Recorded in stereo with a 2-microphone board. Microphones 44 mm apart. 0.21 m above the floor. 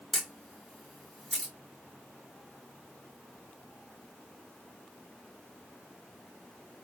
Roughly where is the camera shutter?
Centre.